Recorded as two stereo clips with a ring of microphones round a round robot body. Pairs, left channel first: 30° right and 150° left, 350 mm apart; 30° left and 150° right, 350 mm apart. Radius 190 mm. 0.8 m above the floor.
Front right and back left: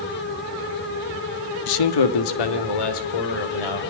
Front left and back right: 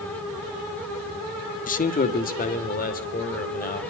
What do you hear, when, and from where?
1.7 s a man speaking: 35° right, 1.2 m